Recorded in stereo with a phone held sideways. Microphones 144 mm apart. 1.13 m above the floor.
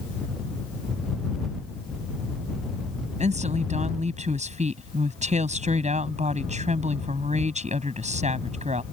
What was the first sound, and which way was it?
A woman speaking, 55° right (ahead or behind).